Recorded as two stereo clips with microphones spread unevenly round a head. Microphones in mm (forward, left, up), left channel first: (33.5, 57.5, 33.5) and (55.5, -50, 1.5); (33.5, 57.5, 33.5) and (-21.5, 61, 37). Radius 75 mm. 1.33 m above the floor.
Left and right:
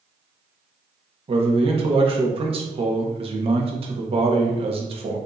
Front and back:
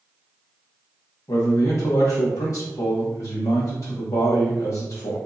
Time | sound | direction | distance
1.3 | a man speaking | 50° right | 1.0 m